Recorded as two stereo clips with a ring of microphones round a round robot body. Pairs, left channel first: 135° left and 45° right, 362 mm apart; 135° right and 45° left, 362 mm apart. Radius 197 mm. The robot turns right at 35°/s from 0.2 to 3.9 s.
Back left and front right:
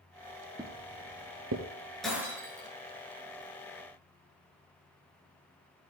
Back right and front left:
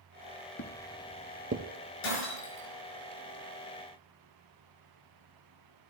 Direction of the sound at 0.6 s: 115° right.